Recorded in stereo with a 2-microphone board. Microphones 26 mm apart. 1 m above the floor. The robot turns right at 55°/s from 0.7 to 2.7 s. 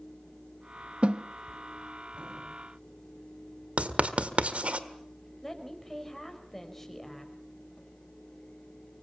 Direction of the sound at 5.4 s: 10° left (ahead or behind).